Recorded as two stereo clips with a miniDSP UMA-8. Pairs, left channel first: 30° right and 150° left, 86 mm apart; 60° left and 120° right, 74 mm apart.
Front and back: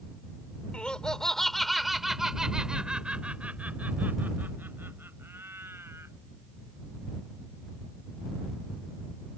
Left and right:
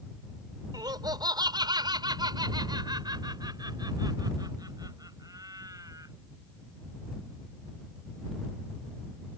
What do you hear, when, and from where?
0.7 s laughter: 105° right; by 6.1 s 150° right